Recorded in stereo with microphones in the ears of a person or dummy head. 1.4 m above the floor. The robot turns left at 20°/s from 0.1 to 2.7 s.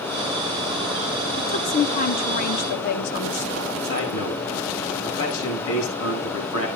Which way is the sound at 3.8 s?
90° left.